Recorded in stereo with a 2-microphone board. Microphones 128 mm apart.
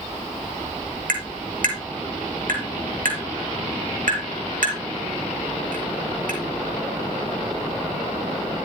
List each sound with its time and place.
1.1 s tapping: 75° right (ahead or behind), 5.5 m